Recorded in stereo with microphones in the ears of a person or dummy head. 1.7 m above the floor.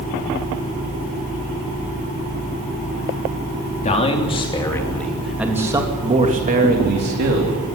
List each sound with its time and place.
3.8 s a man speaking: 35° left (ahead or behind), 3.5 m; by 7.6 s 60° right (ahead or behind), 3.5 m